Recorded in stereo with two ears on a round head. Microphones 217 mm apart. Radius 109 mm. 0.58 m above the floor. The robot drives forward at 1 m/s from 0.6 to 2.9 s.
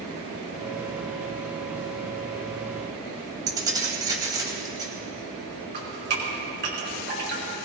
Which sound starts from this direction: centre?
Keys jangling, at 3.5 s.